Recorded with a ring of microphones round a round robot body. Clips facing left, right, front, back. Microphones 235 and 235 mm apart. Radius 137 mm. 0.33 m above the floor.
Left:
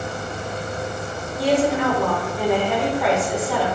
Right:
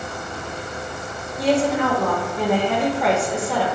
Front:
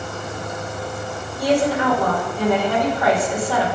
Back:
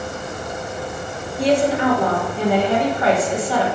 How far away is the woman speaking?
About 1.4 m.